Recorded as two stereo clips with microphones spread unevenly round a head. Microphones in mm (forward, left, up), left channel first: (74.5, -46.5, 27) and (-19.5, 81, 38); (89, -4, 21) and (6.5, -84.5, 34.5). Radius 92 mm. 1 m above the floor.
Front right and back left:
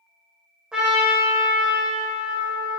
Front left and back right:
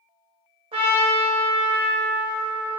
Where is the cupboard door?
No cupboard door in this recording.